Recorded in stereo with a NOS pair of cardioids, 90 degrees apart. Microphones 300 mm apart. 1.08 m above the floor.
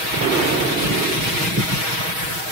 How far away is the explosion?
About 1.5 m.